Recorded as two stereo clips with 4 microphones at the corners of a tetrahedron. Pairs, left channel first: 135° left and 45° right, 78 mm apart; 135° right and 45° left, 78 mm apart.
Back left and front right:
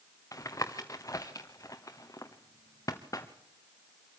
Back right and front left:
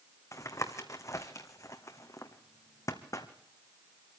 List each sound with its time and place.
0.3 s tapping: straight behind, 1.6 m